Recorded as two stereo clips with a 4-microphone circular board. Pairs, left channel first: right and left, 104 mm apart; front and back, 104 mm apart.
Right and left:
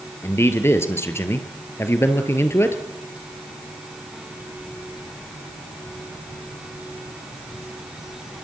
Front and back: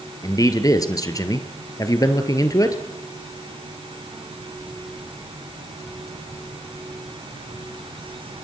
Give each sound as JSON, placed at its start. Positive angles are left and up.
{"t": 0.2, "sound": "a man speaking", "azimuth_deg": -35, "distance_m": 2.0}